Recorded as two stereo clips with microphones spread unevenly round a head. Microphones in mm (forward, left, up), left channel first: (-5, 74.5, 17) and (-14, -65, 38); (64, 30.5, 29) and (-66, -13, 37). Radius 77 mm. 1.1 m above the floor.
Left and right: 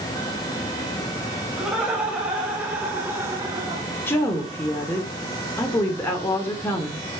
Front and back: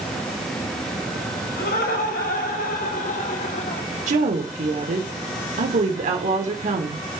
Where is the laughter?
10° right, 6 m; by 3.8 s 25° right, 3 m.